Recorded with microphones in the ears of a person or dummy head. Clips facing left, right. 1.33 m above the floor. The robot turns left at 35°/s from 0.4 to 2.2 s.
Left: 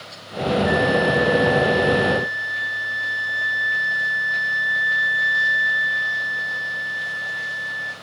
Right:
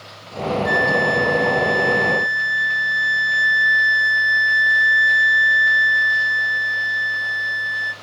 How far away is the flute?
About 0.7 m.